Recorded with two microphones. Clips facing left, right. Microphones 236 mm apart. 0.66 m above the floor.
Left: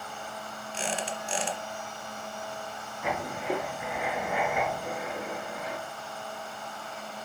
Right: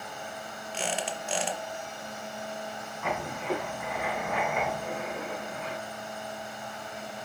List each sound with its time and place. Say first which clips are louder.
0.7 s a squeak: even; 65° right (ahead or behind), 0.9 m
3.0 s writing: left 1 dB; 10° left (ahead or behind), 3 m